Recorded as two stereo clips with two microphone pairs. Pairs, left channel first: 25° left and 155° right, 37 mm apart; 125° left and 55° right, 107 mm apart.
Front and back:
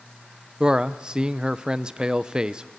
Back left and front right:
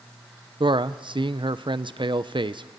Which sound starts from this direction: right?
A man speaking, at 0.6 s.